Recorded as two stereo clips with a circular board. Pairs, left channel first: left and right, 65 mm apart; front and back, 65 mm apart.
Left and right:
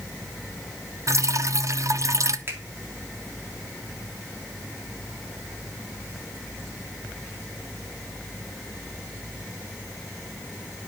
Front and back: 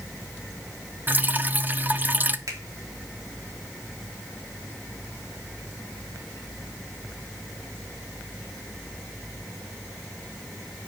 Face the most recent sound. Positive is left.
turn(degrees=-145)